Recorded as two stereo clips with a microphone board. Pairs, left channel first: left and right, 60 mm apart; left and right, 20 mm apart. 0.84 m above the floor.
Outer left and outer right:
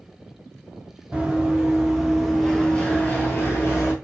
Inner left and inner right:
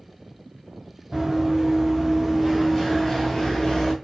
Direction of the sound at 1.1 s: 15° right (ahead or behind).